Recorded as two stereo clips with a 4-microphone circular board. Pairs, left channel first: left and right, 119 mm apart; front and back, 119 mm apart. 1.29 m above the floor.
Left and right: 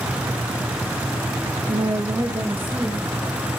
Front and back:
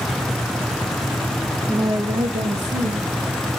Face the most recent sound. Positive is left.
turn(degrees=-175)